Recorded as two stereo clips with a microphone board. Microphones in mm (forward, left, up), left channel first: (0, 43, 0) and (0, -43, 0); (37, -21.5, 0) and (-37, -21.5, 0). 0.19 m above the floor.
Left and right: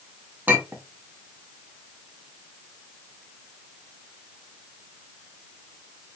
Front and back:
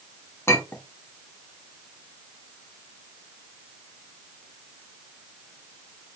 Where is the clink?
35° right, 0.8 m.